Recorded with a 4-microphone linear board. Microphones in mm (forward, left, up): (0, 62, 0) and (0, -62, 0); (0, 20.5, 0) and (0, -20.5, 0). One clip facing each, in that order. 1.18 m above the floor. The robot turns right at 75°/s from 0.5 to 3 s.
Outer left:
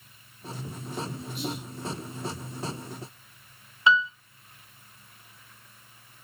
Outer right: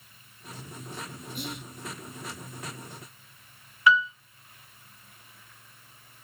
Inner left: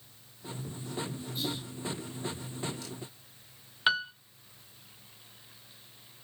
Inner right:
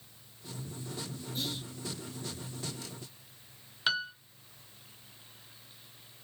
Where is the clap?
I don't hear a clap.